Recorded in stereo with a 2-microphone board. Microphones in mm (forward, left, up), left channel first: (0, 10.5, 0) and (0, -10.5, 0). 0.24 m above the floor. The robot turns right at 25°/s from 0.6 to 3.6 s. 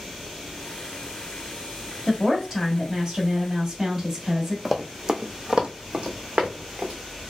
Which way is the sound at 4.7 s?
Centre (ahead or behind).